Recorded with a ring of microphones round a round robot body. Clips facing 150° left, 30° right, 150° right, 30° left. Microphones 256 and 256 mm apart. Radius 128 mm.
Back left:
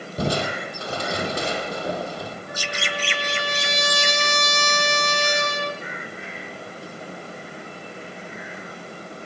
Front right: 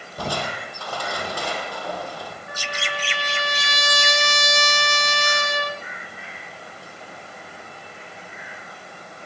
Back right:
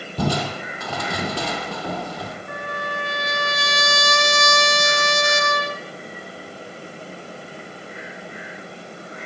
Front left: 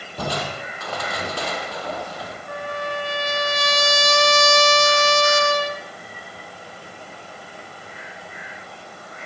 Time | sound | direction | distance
0.2 | crushing | 140° right | 3 m
2.5 | a trumpet | 25° right | 3 m